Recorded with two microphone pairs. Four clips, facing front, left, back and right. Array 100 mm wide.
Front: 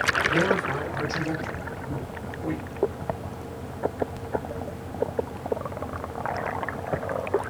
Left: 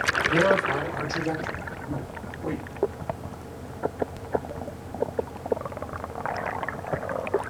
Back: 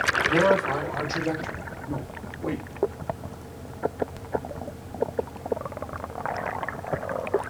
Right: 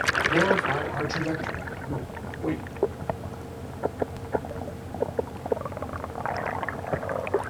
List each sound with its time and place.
0.3 s a man speaking: 140° right, 5 m; by 2.6 s 135° right, 3.5 m